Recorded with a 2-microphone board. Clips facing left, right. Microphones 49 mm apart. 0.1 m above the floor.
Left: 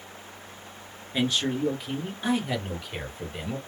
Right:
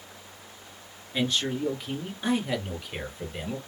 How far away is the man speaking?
About 1.5 m.